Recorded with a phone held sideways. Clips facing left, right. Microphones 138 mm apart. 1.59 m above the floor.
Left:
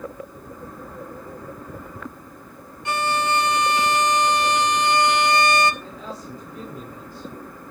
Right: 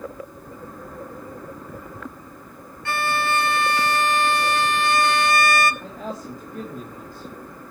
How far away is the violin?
About 1.4 m.